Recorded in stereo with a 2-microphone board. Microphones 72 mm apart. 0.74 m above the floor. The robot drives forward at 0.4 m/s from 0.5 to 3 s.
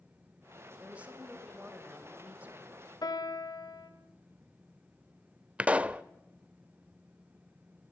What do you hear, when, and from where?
0.8 s a woman speaking: 20° right (ahead or behind), 3.5 m; by 2.9 s 25° right (ahead or behind), 2.5 m
3.0 s a piano: 80° left, 1.8 m
5.6 s a pop: 20° right (ahead or behind), 0.5 m